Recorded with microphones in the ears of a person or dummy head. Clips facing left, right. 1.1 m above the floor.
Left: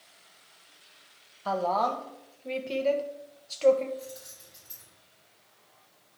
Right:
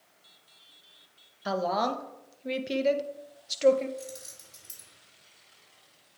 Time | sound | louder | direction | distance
1.4 | a woman speaking | left 1 dB | 20° right (ahead or behind) | 0.6 m
4.0 | keys jangling | even | 50° right (ahead or behind) | 2 m